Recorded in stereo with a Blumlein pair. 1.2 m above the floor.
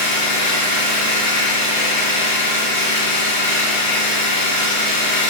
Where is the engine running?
70° left, 1.2 m.